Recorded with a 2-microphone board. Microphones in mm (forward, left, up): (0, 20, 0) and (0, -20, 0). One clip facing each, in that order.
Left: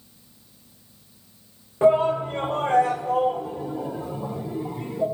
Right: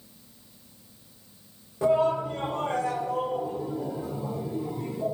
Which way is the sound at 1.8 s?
40° left (ahead or behind).